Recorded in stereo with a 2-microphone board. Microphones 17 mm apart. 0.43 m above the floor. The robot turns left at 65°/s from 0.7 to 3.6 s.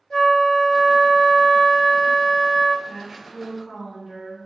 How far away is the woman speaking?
About 1.3 m.